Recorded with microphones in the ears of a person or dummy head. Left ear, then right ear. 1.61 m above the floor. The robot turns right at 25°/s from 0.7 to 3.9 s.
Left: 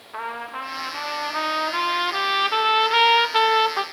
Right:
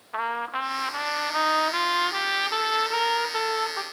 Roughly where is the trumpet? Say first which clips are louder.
Right 3 dB; ahead right.